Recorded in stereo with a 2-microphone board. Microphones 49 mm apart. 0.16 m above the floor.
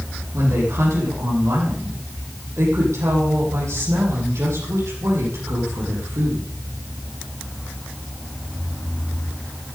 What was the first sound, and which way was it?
A woman speaking, 75° right (ahead or behind).